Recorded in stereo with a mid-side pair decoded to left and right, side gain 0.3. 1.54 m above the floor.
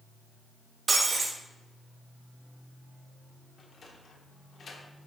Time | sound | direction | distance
0.9 | breaking glass | 60° right | 3 m
3.6 | a sliding door | 60° left | 1.6 m